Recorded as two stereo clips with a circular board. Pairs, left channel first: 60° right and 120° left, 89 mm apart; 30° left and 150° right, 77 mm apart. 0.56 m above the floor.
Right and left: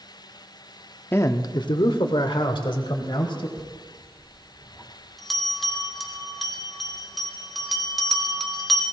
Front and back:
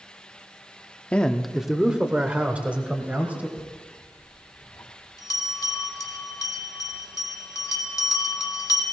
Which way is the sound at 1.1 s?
25° right.